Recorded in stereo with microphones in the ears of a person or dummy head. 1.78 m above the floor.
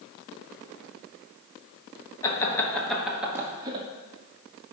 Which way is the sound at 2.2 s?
15° left (ahead or behind).